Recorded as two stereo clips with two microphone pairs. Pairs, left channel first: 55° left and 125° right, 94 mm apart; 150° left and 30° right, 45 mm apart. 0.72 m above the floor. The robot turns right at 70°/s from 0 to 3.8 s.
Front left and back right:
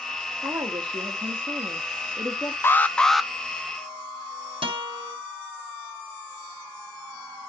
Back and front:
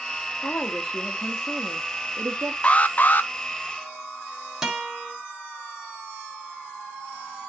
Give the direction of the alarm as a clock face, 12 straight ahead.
9 o'clock.